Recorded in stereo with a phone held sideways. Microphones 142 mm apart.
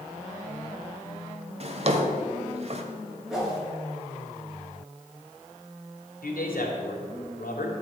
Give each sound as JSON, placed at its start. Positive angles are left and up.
{"t": 1.6, "sound": "a drawer", "side_deg": -45, "distance_m": 1.4}
{"t": 3.3, "sound": "a whoosh", "side_deg": -5, "distance_m": 4.0}
{"t": 6.2, "sound": "a man speaking", "side_deg": 85, "distance_m": 3.0}